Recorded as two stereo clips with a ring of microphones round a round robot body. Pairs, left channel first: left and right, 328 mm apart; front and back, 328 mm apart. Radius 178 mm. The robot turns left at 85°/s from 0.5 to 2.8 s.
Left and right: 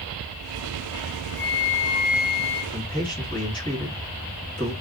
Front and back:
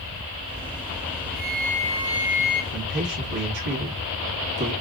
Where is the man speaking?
170° left, 1.4 m; by 4.7 s 165° left, 1.4 m.